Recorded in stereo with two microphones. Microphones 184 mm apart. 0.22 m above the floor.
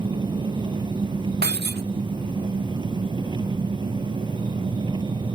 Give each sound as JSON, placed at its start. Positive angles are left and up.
{"t": 0.0, "sound": "an engine running", "side_deg": -25}
{"t": 1.4, "sound": "breaking glass", "side_deg": -60}